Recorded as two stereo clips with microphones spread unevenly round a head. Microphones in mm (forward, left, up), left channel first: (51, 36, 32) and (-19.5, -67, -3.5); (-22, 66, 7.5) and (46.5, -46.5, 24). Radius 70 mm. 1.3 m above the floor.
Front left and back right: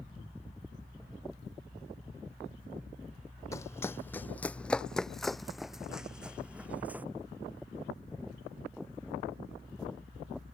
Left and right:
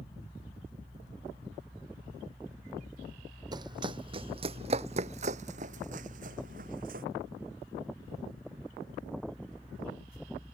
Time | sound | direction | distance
3.5 | running footsteps | 5° right | ?